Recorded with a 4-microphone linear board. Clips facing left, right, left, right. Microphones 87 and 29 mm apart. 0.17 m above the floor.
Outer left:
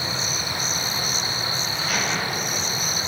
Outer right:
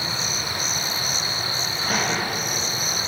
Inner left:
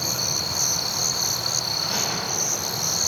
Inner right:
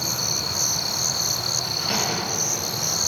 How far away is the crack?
About 4 m.